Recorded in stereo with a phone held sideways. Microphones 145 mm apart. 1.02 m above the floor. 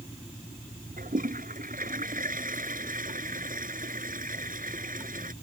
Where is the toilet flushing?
70° right (ahead or behind).